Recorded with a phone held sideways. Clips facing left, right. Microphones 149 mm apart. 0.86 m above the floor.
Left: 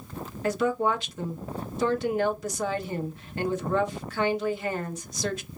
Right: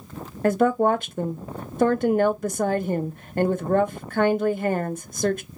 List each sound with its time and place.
0.4 s a woman speaking: 50° right (ahead or behind), 0.7 m